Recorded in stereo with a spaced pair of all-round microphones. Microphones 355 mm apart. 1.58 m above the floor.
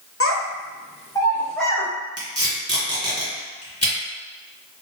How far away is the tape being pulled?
About 1.9 m.